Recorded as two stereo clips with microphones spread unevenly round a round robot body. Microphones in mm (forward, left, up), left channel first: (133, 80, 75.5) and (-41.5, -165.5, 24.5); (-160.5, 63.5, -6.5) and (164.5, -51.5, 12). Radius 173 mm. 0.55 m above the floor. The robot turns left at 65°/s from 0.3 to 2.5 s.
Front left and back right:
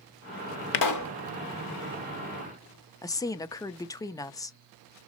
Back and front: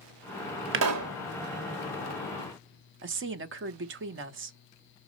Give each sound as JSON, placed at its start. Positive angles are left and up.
{"t": 0.7, "sound": "a pop", "azimuth_deg": 40, "distance_m": 0.8}
{"t": 3.0, "sound": "a woman speaking", "azimuth_deg": -30, "distance_m": 0.8}